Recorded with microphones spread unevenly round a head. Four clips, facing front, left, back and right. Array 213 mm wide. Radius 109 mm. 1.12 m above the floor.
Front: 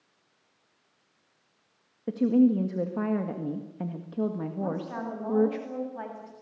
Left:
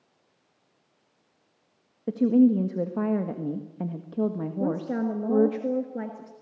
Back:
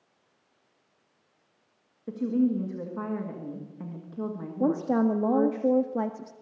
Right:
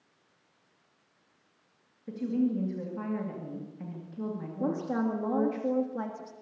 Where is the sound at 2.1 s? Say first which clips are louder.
Left 10 dB, front 4 dB; 75° left, 1.7 m.